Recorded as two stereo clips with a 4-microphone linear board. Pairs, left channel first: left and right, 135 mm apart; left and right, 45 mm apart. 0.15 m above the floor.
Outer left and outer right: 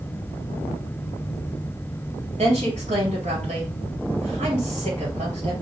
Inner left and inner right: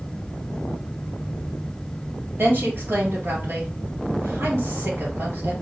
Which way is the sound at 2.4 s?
55° right (ahead or behind).